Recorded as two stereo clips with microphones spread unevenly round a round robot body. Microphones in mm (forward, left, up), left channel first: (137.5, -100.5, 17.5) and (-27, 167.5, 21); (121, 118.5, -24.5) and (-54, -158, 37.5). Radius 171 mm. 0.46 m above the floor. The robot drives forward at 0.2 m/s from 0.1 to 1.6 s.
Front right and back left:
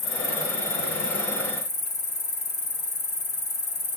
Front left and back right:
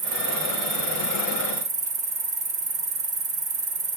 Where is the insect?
105° right, 1.4 m; by 4.0 s 115° right, 1.5 m.